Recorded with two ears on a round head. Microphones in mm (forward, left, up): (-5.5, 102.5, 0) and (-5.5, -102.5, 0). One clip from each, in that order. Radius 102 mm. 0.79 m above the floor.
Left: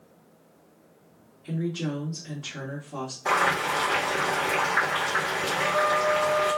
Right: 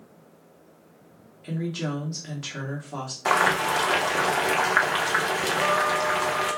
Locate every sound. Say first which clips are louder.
1.4 s a woman speaking: even; 60° right (ahead or behind), 1.5 m
3.2 s boiling: right 2 dB; 65° right (ahead or behind), 1.1 m
5.5 s a trumpet: even; 20° right (ahead or behind), 1.0 m